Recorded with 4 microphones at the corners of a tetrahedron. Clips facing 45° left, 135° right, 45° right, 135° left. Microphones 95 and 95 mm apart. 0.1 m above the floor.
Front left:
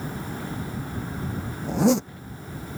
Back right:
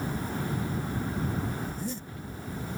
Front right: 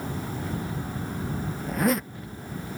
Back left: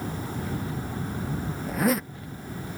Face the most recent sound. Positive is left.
turn(degrees=45)